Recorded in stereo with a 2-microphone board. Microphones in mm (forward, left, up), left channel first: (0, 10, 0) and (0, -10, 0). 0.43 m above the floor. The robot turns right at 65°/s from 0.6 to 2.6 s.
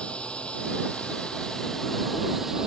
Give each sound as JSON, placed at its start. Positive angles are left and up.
{"t": 0.0, "sound": "a drone", "azimuth_deg": 75}